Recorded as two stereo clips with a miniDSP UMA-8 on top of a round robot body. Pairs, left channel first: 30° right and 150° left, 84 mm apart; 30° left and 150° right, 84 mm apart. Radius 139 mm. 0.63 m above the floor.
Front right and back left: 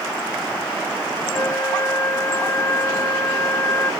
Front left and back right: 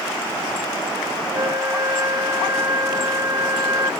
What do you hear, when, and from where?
1.3 s a flute: 95° right